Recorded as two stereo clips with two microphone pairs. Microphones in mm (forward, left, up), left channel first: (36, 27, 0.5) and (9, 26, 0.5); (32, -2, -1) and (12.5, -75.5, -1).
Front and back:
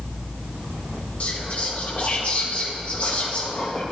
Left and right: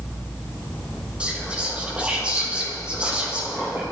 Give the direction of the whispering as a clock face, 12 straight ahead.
1 o'clock.